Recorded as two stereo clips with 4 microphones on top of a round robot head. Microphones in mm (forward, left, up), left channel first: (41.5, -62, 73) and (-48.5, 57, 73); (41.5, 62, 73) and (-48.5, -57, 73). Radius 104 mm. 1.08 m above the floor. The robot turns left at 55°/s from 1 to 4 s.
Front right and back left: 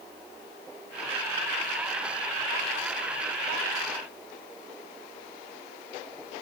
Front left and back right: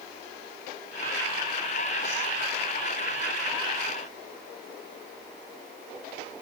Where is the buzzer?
No buzzer in this recording.